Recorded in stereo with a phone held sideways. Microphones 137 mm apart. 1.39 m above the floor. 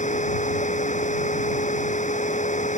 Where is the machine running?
60° left (ahead or behind).